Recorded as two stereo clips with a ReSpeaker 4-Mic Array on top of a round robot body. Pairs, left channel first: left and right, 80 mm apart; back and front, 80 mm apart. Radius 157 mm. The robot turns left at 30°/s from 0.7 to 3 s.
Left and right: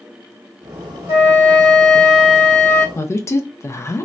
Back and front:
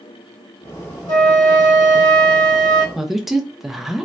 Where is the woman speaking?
85° left, 0.6 m.